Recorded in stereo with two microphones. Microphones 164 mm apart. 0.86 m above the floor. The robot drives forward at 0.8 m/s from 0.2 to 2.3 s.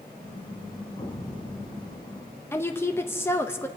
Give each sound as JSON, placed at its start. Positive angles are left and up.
{"t": 1.0, "sound": "an explosion", "side_deg": 30, "distance_m": 4.0}
{"t": 2.5, "sound": "a woman speaking", "side_deg": 15, "distance_m": 0.9}